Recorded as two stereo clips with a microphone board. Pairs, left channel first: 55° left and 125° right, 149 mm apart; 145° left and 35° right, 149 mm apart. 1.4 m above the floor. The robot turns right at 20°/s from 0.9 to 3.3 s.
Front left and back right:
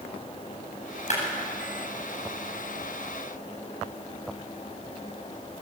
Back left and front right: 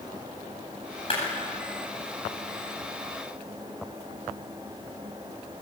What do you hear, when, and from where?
1.1 s a clap: 95° left, 9.5 m